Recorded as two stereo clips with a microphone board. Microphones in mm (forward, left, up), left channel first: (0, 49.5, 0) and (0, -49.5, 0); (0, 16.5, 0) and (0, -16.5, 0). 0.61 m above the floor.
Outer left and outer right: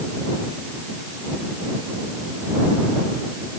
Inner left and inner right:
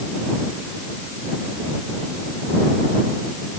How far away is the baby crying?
I don't hear a baby crying.